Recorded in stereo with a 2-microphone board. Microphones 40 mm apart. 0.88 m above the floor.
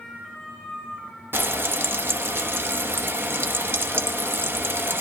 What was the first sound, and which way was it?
Frying, 60° right (ahead or behind).